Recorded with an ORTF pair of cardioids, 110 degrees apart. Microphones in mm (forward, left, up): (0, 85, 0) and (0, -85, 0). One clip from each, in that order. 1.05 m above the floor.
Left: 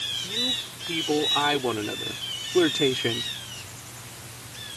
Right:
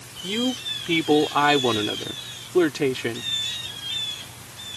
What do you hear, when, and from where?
0.2 s a man speaking: 55° right; by 3.3 s straight ahead